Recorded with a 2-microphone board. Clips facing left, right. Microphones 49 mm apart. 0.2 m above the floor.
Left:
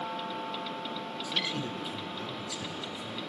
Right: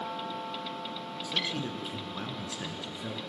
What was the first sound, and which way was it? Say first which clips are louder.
A man speaking: right 1 dB; 5° left (ahead or behind).